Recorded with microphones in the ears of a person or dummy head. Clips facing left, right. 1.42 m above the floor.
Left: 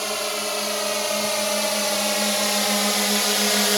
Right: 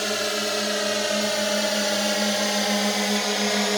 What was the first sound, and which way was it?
A drone, 15° right (ahead or behind).